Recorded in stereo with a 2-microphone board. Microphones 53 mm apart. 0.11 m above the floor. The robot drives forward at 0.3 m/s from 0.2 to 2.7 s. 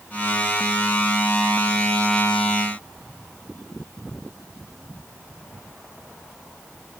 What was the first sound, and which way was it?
Only background noise.